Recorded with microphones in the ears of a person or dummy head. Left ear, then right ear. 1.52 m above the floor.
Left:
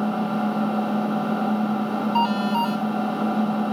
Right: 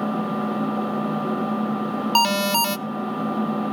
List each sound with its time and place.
0.0 s an engine running: 60° left (ahead or behind), 6.5 m
2.1 s an alarm: 75° right (ahead or behind), 0.8 m